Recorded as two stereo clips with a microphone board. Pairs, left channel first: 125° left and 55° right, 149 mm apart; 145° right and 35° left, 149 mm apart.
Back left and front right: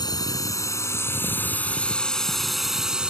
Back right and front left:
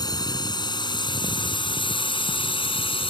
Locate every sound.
0.0 s a drone: 170° left; by 3.1 s 135° right